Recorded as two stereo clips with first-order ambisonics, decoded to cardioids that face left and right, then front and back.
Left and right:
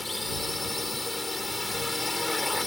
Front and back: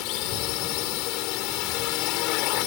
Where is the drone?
10° left.